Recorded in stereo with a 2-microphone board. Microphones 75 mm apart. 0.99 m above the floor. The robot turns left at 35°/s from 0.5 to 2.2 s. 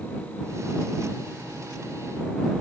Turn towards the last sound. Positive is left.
No sound to turn to.